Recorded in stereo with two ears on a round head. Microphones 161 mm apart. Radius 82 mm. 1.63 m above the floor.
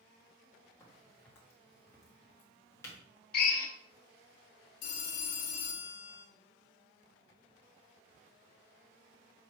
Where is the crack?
15° left (ahead or behind), 1.9 m.